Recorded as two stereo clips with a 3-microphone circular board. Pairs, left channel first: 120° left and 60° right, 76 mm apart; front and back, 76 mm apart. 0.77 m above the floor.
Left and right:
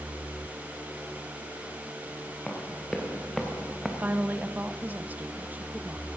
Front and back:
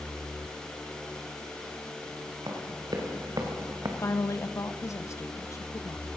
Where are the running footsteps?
160° right, 4 m; by 3.9 s 145° right, 2.0 m.